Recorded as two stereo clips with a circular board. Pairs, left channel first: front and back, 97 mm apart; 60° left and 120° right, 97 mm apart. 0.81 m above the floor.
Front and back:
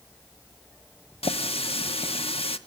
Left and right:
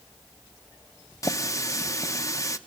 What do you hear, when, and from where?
1.2 s a running tap: 5° left, 0.8 m